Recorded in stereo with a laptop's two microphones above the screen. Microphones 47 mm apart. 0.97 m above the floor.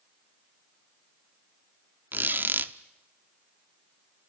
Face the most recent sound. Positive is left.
turn(degrees=-45)  # may be behind; listen again after turning